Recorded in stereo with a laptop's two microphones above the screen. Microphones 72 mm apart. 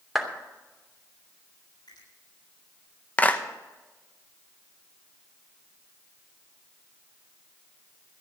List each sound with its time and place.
0.1 s a clap: 5° right (ahead or behind), 3 m
1.9 s a finger snap: 85° left, 8 m
3.2 s a clap: 25° left (ahead or behind), 0.7 m